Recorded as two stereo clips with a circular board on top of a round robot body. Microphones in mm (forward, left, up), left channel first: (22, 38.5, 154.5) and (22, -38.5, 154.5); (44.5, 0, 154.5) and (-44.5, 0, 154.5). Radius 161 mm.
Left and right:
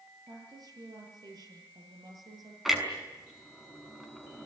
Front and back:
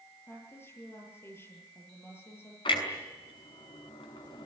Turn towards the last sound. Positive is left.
turn(degrees=-5)